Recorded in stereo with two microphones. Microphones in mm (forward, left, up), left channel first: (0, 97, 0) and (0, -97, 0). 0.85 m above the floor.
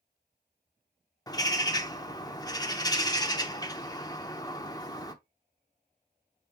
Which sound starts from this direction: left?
A bird, at 1.3 s.